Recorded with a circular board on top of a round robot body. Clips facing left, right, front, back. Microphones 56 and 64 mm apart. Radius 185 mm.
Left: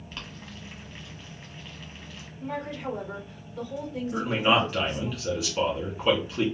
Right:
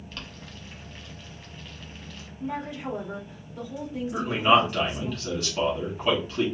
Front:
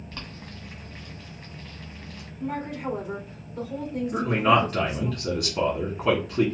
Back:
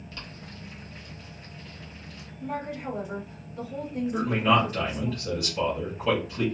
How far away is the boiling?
About 1.7 m.